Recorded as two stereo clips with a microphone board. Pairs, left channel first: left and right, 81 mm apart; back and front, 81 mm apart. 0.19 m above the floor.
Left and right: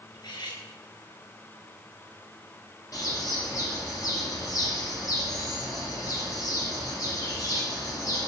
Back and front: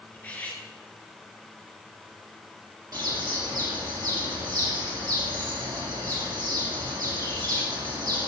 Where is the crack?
I don't hear a crack.